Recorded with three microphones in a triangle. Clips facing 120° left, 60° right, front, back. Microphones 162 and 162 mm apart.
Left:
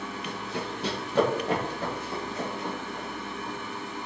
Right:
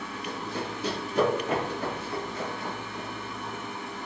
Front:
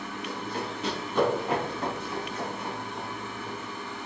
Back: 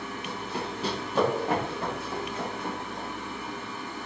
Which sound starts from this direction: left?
Running footsteps, at 0.2 s.